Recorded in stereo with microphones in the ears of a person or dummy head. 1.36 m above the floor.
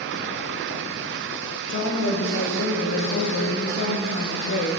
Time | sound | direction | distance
1.7 | a woman speaking | 45° left (ahead or behind) | 1.5 m